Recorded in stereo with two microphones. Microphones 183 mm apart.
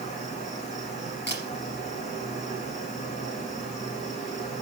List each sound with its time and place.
0.0 s an insect: 40° left (ahead or behind), 5.5 m
1.3 s a camera shutter: 75° left (ahead or behind), 3.5 m